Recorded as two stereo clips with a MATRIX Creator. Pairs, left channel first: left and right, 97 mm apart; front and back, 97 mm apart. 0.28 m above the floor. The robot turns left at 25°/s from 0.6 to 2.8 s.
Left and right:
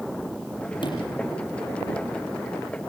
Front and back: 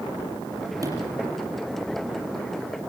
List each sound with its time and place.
0.8 s a sliding door: 125° left, 6.5 m; by 1.2 s 115° left, 6.5 m